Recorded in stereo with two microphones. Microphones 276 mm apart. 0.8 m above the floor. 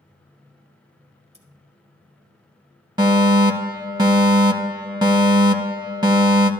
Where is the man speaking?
I don't hear a man speaking.